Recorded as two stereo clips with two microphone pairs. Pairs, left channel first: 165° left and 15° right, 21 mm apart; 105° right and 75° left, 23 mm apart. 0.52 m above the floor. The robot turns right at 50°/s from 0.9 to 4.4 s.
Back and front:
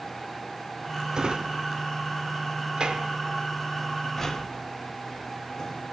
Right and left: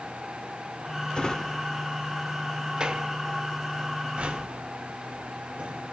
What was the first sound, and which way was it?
A drawer, 65° right.